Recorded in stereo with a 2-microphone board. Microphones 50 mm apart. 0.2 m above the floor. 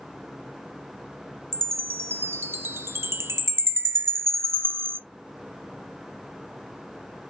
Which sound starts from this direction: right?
A chime, at 1.5 s.